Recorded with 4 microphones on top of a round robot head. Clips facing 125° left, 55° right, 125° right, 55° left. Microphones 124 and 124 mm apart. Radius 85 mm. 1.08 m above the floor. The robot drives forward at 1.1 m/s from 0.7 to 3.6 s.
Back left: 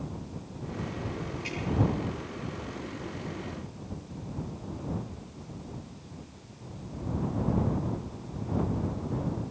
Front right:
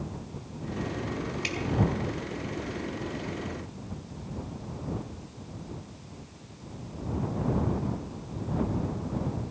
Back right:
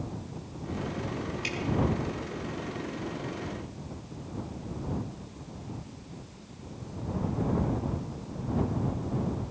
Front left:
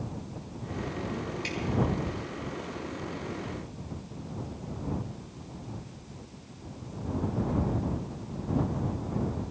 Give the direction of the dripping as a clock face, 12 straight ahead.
2 o'clock.